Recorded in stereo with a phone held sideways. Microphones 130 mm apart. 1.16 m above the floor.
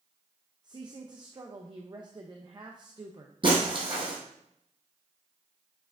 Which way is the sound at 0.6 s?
30° right (ahead or behind).